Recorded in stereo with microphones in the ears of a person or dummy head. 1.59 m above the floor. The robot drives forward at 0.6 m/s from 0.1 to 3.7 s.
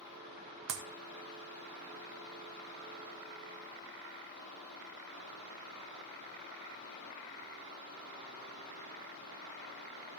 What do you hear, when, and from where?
0.7 s a clap: 65° right (ahead or behind), 1.8 m; by 0.8 s 60° right (ahead or behind), 1.8 m